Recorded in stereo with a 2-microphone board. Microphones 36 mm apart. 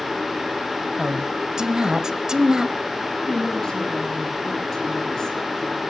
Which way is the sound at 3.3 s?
15° left (ahead or behind).